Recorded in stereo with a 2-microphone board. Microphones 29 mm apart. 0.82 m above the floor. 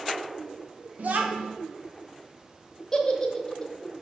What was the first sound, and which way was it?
A child speaking, 70° right (ahead or behind).